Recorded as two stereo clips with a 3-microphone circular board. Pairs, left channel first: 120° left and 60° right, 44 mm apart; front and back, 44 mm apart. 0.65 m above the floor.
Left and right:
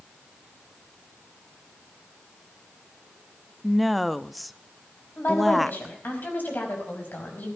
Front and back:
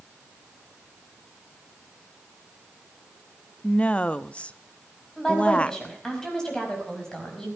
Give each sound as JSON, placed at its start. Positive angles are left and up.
{"t": 3.6, "sound": "a woman speaking", "azimuth_deg": 30, "distance_m": 0.5}
{"t": 5.2, "sound": "a woman speaking", "azimuth_deg": 80, "distance_m": 4.5}